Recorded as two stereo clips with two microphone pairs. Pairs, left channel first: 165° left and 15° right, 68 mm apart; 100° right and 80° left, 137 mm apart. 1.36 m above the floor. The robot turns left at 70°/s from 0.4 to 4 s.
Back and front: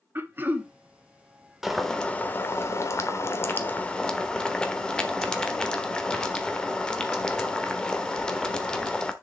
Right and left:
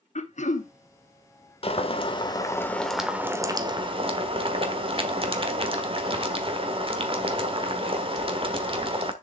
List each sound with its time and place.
0.1 s throat clearing: 75° right, 0.9 m; by 0.7 s 95° right, 0.9 m
1.6 s boiling: 100° right, 1.3 m; by 9.1 s 95° left, 1.3 m